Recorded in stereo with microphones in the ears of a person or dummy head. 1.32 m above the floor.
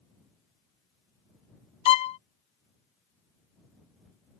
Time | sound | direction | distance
1.9 | a violin | 35° left (ahead or behind) | ?